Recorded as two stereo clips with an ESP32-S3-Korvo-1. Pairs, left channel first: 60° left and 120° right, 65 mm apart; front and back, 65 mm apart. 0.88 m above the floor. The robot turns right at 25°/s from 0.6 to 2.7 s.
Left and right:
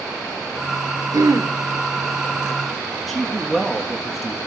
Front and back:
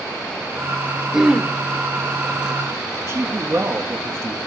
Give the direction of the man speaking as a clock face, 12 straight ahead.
7 o'clock.